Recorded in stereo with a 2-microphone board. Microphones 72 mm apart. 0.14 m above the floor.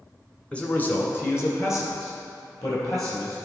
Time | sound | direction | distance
0.5 | a man speaking | 15° left (ahead or behind) | 1.0 m